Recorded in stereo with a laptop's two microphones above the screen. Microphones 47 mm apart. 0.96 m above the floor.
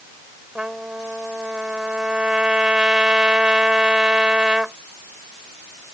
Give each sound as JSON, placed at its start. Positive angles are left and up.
{"t": 0.6, "sound": "a trumpet", "side_deg": -20}